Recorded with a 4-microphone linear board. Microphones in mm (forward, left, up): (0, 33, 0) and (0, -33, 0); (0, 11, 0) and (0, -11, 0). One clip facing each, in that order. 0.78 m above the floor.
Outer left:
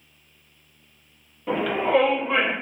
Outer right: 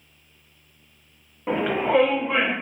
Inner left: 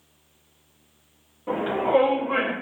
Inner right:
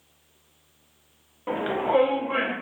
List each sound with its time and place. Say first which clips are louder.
1.5 s a shout: even, inner left 2 dB; 35° right (ahead or behind), 0.7 m; by 2.5 s centre (ahead or behind), 1.5 m